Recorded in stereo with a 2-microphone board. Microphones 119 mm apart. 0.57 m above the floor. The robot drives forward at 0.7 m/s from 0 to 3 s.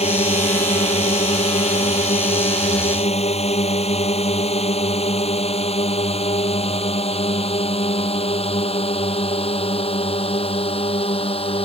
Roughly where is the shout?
No shout in this recording.